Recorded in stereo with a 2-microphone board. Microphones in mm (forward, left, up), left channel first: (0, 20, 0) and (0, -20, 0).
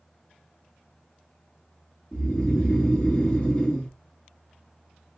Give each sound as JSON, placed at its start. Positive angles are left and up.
{"t": 2.1, "sound": "snoring", "side_deg": 20, "distance_m": 1.3}